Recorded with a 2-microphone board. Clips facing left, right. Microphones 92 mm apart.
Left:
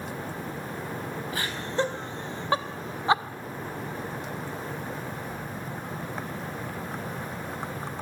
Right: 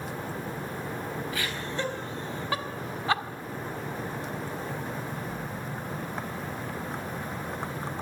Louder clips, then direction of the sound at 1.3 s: Left 7 dB; 35° left (ahead or behind).